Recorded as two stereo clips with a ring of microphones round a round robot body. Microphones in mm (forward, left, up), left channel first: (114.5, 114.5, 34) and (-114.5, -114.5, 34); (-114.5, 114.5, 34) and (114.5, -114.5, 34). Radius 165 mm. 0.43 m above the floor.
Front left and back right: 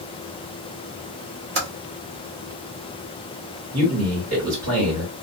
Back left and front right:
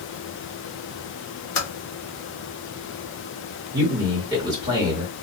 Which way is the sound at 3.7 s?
120° right.